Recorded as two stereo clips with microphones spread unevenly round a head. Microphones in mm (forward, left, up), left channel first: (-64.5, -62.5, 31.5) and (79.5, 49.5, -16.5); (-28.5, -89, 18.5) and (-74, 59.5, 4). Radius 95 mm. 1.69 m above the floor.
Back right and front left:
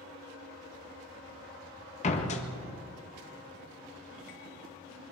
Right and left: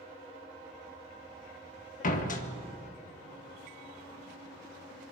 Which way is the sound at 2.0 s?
100° right.